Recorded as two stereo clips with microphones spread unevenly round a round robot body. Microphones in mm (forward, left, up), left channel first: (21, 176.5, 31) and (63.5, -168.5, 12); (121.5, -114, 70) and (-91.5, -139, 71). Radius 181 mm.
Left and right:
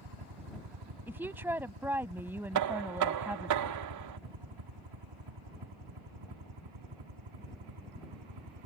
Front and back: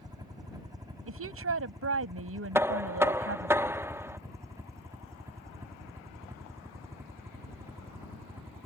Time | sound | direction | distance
0.0 | a helicopter | 100° right | ?
1.1 | a woman speaking | 170° right | ?
2.5 | knocking | 95° right | ?